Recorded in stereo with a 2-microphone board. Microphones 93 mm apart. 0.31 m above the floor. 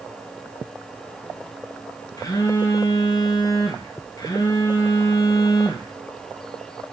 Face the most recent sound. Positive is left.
turn(degrees=40)  # may be behind; listen again after turning